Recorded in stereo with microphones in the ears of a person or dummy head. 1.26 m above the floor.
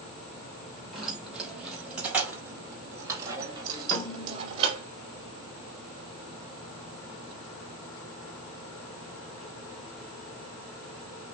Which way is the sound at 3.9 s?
15° left (ahead or behind).